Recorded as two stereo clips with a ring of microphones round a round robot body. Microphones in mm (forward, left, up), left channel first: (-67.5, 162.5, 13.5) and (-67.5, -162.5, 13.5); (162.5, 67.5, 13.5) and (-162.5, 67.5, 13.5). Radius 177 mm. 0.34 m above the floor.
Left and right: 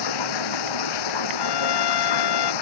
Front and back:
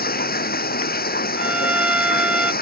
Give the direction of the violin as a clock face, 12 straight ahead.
9 o'clock.